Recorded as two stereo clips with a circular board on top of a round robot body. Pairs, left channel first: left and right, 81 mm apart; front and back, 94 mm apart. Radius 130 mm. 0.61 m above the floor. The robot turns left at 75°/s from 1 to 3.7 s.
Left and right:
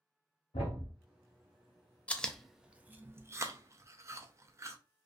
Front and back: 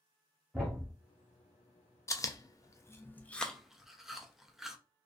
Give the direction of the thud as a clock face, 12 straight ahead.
9 o'clock.